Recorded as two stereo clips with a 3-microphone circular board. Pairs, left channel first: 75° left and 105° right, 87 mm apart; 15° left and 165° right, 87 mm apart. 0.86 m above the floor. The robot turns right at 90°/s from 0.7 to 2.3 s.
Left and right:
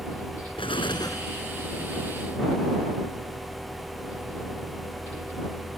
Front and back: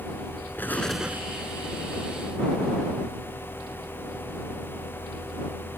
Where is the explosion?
85° left; by 1.3 s 135° left.